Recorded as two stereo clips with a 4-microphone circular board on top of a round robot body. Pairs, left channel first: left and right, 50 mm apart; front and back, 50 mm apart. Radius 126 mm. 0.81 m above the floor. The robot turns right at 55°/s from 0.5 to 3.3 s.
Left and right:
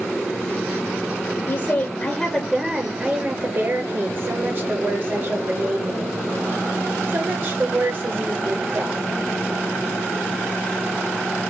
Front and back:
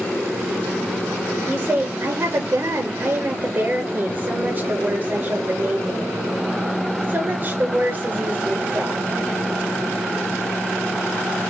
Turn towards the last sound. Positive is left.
turn(degrees=-140)